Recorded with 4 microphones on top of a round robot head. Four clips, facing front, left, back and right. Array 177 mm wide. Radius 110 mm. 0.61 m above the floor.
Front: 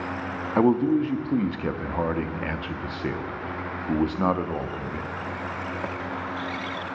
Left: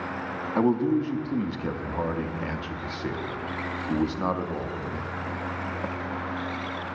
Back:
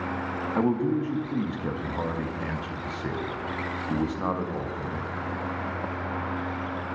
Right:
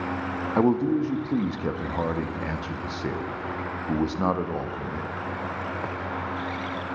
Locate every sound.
0.6 s a man speaking: 30° right, 0.6 m